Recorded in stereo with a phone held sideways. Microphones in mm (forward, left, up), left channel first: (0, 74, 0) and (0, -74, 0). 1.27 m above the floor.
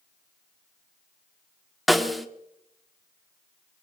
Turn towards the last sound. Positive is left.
turn(degrees=0)  # may be behind; listen again after turning